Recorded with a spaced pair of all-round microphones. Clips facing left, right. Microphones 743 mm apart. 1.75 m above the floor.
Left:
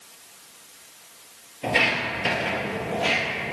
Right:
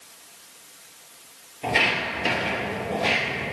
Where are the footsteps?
5° left (ahead or behind), 1.8 m; by 3.5 s 50° left (ahead or behind), 3 m.